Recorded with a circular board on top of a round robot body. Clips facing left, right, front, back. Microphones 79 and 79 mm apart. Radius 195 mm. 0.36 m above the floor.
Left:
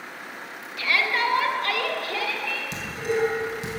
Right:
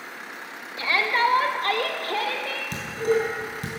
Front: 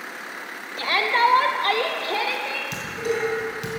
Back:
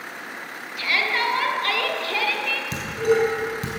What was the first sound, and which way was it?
A shout, 35° right.